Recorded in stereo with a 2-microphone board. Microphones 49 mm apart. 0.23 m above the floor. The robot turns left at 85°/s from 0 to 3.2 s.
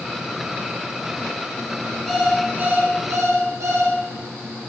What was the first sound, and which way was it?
An alarm clock, 10° left.